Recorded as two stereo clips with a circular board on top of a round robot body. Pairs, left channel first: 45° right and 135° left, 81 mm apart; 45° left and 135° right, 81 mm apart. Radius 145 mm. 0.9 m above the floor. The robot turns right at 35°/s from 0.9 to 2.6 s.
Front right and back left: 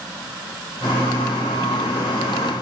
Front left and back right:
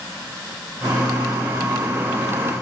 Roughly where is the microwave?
No microwave in this recording.